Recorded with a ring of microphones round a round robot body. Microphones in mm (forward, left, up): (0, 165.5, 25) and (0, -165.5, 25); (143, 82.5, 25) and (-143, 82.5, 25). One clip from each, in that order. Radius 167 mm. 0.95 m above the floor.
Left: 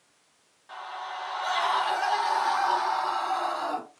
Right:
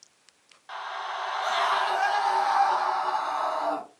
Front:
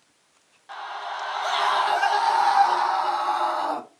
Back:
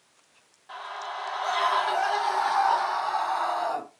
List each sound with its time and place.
0.7 s a scream: 55° right, 1.0 m; by 3.8 s 35° left, 1.7 m